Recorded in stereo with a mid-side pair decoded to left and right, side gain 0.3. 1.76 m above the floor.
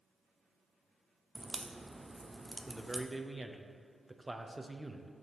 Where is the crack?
5° right, 0.6 m.